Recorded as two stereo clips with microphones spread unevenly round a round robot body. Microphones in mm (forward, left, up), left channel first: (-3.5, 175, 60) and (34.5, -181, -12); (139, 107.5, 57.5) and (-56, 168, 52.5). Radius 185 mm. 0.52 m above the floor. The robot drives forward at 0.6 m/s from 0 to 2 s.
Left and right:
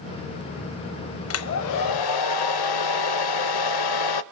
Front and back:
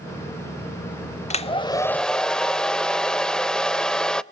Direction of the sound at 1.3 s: 45° left.